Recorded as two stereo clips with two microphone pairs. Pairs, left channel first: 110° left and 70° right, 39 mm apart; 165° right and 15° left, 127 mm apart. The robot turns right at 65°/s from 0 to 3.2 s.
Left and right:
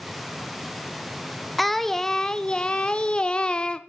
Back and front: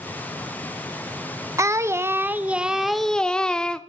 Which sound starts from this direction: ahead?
Singing, at 1.6 s.